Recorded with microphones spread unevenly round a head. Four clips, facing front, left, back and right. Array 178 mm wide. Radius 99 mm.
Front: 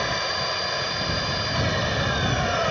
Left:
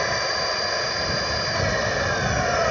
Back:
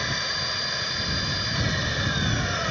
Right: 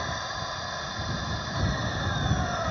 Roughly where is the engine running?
Left.